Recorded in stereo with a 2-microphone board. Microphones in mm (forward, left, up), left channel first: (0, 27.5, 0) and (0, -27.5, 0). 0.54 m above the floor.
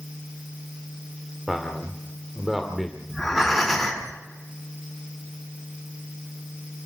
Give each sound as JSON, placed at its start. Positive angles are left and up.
{"t": 1.5, "sound": "a man speaking", "side_deg": -5, "distance_m": 2.0}
{"t": 3.1, "sound": "breathing", "side_deg": 5, "distance_m": 4.0}